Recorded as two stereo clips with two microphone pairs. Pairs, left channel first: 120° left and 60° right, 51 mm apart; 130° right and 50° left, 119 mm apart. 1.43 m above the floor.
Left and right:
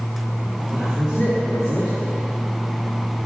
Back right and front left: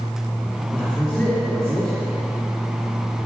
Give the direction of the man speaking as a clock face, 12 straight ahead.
2 o'clock.